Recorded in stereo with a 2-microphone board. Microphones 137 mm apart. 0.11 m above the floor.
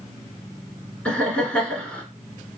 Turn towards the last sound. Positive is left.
turn(degrees=10)  # may be behind; listen again after turning